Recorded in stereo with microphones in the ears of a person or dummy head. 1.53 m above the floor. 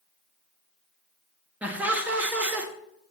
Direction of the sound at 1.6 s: 10° right (ahead or behind).